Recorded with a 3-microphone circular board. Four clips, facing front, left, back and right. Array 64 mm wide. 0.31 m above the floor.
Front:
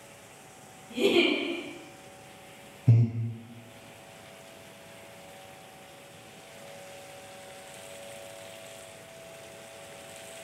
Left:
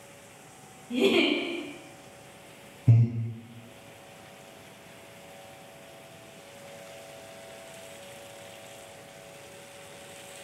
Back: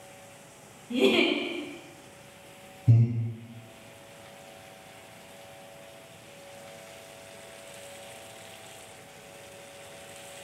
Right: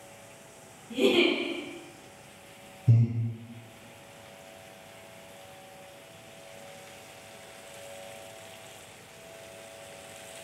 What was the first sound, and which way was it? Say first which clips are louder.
A giggle: even, back 1 dB; 150° left.